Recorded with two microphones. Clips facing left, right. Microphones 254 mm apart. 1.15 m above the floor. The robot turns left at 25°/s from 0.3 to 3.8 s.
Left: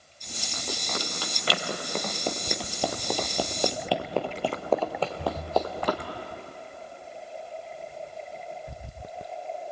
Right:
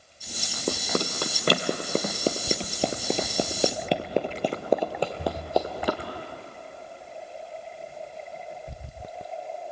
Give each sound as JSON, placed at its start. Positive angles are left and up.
{"t": 0.7, "sound": "running footsteps", "side_deg": -60, "distance_m": 2.0}